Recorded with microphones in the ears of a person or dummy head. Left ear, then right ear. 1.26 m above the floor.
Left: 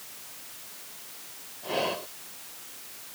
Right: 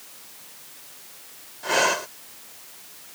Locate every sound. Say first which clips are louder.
1.6 s breathing: right 8 dB; 55° right (ahead or behind)